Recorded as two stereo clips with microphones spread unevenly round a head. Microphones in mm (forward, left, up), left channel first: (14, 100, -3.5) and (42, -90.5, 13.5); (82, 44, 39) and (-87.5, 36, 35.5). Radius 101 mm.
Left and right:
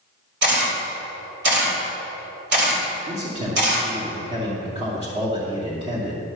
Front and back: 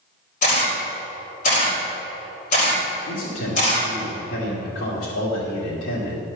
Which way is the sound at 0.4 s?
50° right.